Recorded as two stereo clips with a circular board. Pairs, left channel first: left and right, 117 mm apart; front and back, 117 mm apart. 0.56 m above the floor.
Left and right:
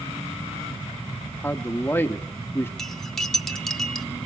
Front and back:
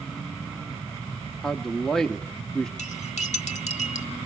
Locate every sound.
1.4 s a man speaking: 70° left, 0.6 m
2.8 s cutlery clinking: 5° left, 1.0 m